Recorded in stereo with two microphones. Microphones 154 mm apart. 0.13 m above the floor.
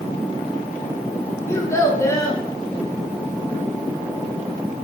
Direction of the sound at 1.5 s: 20° left (ahead or behind).